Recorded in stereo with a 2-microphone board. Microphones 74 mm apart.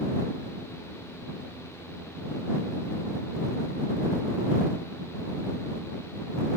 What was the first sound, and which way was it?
Only background noise.